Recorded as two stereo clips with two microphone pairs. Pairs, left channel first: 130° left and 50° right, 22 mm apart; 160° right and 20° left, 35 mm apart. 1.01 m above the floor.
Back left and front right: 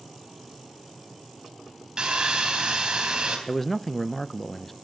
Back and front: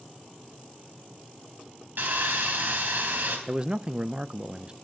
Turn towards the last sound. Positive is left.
turn(degrees=55)